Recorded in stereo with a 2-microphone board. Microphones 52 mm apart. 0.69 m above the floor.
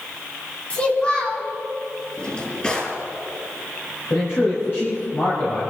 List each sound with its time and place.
0.7 s a child speaking: 25° left (ahead or behind), 3.5 m
2.2 s a drawer: 20° left (ahead or behind), 4.5 m
4.1 s a man speaking: 50° left (ahead or behind), 4.5 m